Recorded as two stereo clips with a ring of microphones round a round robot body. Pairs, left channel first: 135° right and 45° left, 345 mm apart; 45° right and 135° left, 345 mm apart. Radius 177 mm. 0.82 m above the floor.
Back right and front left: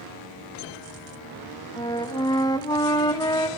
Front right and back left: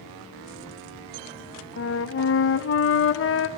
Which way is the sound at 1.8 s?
65° right.